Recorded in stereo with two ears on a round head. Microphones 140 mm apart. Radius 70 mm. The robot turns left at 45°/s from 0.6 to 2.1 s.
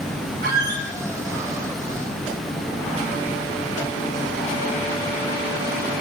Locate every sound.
0.4 s a squeak: 65° right (ahead or behind), 2.5 m; by 0.9 s 80° right, 2.5 m